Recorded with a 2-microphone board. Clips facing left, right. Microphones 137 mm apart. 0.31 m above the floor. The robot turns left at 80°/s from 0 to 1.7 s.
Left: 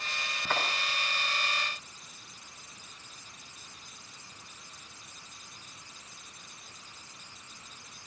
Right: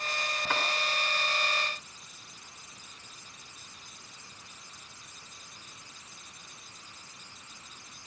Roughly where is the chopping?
Centre.